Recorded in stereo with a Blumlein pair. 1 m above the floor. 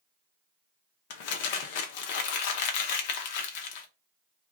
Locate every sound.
1.1 s crumpling: 50° left, 0.6 m